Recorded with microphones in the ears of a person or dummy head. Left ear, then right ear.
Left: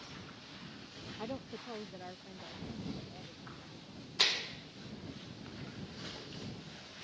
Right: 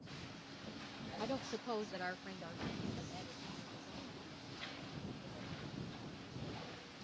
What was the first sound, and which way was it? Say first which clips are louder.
A woman speaking: right 2 dB; 5° right (ahead or behind).